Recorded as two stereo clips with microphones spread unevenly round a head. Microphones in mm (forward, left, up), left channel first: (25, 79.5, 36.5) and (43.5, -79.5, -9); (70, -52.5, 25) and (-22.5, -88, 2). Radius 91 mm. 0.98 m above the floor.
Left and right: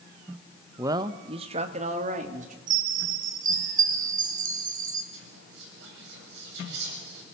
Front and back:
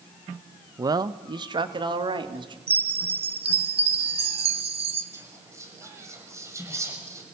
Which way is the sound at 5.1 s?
95° right.